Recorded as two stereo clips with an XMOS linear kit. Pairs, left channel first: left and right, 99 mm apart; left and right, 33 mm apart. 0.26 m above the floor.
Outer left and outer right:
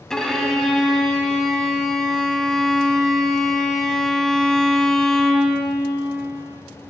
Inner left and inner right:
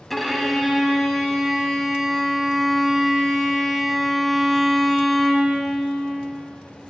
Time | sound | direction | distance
0.1 | a violin | 5° left (ahead or behind) | 0.6 m